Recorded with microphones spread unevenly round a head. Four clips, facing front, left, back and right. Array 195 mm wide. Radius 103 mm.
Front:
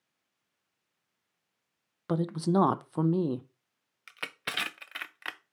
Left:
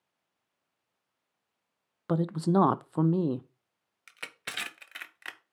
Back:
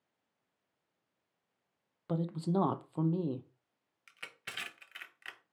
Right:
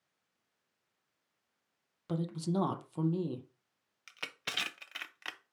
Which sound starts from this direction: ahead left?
A man speaking, at 2.1 s.